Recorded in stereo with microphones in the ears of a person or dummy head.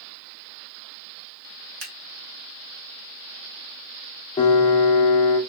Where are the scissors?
75° right (ahead or behind), 1.7 m.